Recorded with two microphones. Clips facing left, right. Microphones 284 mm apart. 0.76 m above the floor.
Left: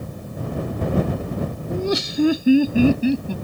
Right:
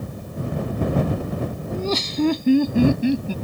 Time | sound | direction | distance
1.7 | laughter | 15° left (ahead or behind) | ?